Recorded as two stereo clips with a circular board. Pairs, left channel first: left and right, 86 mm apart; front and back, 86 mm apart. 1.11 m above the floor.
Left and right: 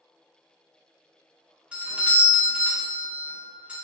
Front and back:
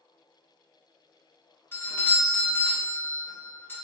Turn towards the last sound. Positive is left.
turn(degrees=-30)